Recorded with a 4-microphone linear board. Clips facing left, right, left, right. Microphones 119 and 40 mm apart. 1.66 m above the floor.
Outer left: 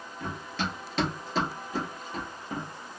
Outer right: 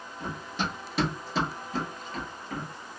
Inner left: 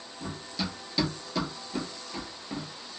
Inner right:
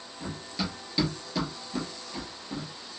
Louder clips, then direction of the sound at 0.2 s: Even, inner right 1 dB; 25° right (ahead or behind).